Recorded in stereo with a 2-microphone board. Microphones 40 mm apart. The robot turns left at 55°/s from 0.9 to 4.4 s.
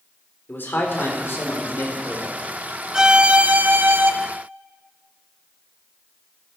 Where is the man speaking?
115° left, 3.5 m; by 2.4 s 35° left, 3.5 m.